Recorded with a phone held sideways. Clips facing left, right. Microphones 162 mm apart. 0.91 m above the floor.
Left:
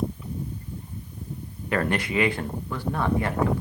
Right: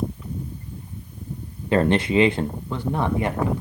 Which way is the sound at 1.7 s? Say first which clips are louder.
Right 6 dB; 25° right (ahead or behind).